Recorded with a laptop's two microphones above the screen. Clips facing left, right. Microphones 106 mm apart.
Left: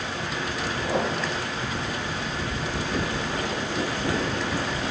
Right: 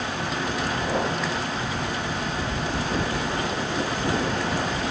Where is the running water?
75° right (ahead or behind), 7 m.